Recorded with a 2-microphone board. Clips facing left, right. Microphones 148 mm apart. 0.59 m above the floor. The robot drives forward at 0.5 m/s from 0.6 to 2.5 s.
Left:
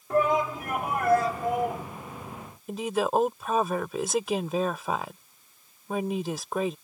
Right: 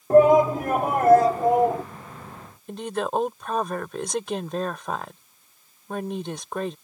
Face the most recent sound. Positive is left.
turn(degrees=5)  # may be behind; listen again after turning